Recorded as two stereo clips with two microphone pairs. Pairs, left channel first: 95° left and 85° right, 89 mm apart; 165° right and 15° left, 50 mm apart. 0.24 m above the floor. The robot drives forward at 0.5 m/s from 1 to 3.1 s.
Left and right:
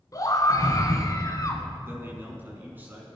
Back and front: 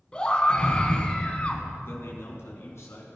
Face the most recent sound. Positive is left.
turn(degrees=-155)